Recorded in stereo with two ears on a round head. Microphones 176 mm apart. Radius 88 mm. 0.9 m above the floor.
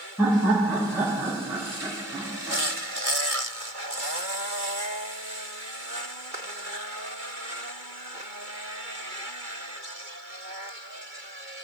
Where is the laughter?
10° right (ahead or behind), 4 m.